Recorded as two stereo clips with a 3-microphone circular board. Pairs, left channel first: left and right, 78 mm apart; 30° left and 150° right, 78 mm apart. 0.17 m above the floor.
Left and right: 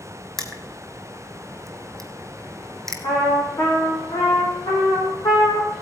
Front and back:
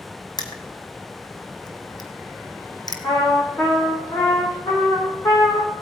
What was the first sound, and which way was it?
Crushing, 5° left.